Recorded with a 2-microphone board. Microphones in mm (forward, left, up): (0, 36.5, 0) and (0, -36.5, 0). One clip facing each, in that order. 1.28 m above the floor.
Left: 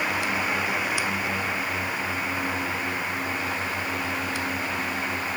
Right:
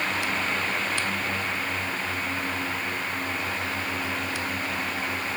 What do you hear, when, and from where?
Only background noise.